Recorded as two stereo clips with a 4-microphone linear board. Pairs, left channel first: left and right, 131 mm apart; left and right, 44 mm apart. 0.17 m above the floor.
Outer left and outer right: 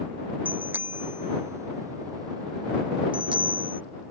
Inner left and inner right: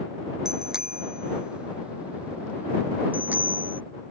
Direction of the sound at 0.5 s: 15° right (ahead or behind).